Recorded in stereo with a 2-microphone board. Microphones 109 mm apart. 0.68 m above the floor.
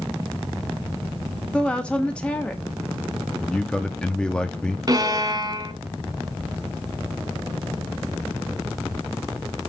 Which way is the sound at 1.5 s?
10° left (ahead or behind).